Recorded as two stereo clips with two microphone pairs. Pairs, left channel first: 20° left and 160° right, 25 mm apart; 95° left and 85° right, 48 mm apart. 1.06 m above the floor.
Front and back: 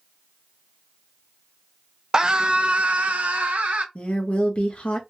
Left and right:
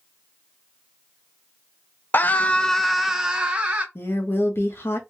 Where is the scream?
145° left, 0.5 m; by 3.9 s 145° right, 1.0 m.